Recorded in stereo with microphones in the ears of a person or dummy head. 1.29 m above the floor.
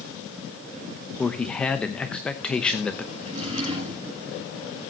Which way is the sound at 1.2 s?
5° left (ahead or behind).